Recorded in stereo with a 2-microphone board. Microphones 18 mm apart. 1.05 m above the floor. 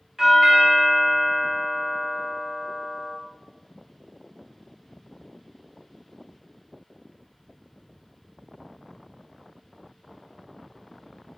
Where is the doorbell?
20° right (ahead or behind), 0.7 m.